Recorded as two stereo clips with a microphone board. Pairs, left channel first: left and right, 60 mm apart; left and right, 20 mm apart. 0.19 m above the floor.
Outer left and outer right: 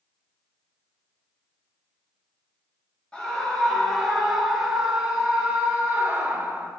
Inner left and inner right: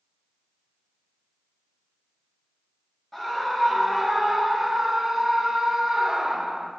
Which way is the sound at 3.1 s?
15° left (ahead or behind).